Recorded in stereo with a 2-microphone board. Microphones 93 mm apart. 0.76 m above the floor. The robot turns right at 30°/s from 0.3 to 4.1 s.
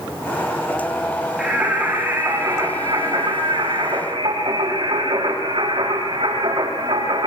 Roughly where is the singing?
Behind.